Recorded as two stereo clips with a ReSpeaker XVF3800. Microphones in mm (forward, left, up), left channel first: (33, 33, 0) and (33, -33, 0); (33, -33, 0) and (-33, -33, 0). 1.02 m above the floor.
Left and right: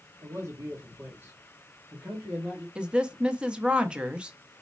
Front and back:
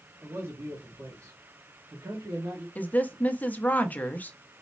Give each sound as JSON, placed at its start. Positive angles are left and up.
{"t": 0.2, "sound": "a man speaking", "azimuth_deg": -125, "distance_m": 1.4}
{"t": 2.8, "sound": "a woman speaking", "azimuth_deg": -35, "distance_m": 0.7}